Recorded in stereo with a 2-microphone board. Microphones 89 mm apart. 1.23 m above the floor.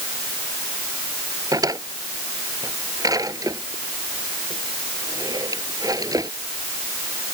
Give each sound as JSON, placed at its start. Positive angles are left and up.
{"t": 1.5, "sound": "a drawer", "side_deg": -45}